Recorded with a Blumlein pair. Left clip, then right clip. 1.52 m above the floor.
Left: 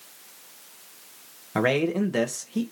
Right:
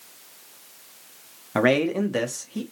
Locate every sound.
1.6 s a man speaking: 10° right, 0.7 m; by 2.6 s straight ahead, 1.3 m